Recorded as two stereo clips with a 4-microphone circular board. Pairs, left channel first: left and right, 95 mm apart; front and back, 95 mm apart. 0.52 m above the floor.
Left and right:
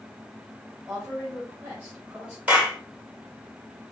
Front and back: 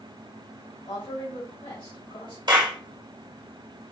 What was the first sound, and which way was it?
A woman speaking, 15° right.